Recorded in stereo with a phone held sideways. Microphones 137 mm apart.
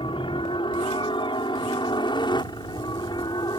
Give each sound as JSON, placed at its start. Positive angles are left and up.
{"t": 0.0, "sound": "a helicopter", "side_deg": 40}